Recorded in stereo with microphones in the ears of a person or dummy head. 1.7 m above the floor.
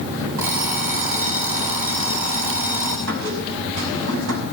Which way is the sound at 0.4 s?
45° right (ahead or behind).